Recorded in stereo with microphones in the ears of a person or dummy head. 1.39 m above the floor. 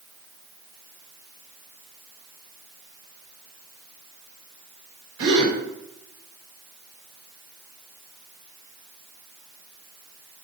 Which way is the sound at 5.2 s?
85° right.